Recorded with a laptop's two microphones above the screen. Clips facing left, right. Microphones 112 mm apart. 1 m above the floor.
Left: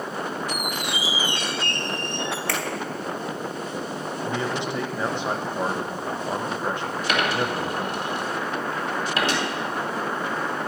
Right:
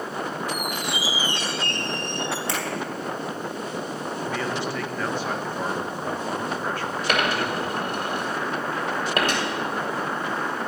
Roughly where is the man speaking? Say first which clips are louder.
Left 1 dB; left.